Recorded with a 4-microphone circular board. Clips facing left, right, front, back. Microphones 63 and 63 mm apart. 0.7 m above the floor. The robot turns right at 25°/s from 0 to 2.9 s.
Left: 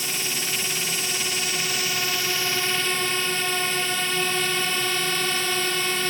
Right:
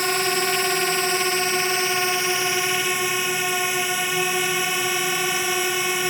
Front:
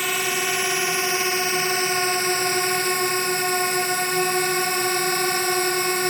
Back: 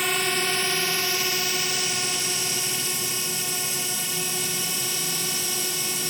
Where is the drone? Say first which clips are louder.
Right 9 dB, front 1 dB; 90° right; by 6.1 s 15° right.